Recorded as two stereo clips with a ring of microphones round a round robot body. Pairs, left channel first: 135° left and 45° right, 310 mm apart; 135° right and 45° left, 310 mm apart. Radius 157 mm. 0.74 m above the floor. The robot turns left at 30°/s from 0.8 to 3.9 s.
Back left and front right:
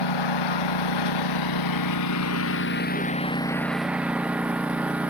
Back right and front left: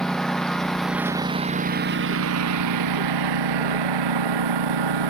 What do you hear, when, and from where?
0.0 s a lawn mower: 135° left; by 5.1 s 40° left